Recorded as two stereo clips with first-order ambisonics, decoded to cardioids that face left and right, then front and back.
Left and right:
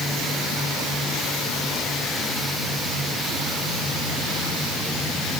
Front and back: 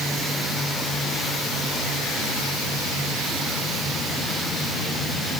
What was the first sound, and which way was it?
Only background noise.